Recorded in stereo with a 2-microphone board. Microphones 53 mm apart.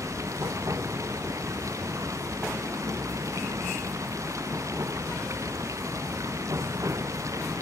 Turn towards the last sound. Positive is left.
turn(degrees=-80)